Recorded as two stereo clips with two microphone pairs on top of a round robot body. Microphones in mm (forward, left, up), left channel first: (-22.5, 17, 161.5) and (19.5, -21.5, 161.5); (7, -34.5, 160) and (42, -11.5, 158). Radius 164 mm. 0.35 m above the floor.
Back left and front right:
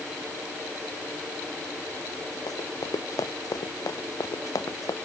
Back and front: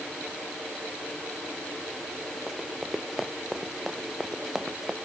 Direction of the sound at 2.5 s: 120° left.